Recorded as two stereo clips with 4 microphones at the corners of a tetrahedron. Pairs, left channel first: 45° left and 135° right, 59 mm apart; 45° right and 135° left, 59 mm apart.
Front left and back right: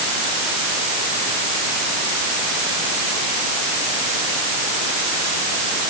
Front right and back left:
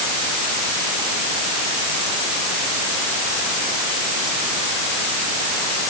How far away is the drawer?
I don't hear a drawer.